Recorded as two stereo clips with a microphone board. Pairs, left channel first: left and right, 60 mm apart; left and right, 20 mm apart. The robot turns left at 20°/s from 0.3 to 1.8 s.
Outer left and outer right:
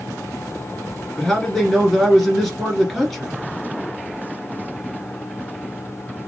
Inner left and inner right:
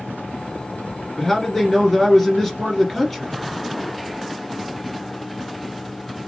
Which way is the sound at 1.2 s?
10° left (ahead or behind).